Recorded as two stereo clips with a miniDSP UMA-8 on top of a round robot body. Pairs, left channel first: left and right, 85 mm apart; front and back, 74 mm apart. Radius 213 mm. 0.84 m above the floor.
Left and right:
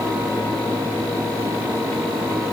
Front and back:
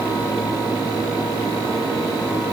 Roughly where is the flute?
No flute in this recording.